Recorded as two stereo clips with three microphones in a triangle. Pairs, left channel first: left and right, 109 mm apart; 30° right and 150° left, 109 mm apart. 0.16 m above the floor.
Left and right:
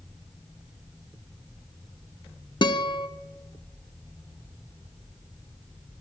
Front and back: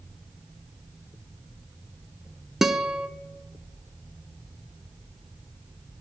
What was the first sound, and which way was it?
A guitar, 65° left.